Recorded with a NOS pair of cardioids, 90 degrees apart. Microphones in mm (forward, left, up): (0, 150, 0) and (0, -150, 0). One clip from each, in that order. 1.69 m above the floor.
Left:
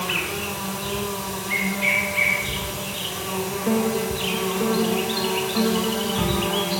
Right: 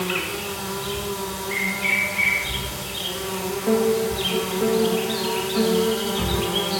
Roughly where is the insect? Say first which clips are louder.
Left 1 dB; ahead left.